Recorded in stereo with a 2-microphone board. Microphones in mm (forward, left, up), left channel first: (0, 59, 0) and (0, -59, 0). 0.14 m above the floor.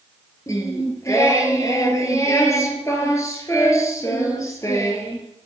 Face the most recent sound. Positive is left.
turn(degrees=25)  # may be behind; listen again after turning